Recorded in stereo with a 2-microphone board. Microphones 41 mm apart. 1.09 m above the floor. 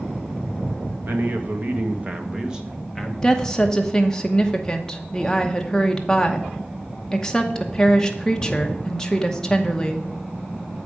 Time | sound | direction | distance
1.0 | a man speaking | 55° right (ahead or behind) | 1.1 m
3.2 | a woman speaking | 20° left (ahead or behind) | 0.9 m